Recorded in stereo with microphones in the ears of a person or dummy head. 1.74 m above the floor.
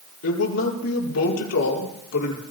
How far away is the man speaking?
About 5.5 m.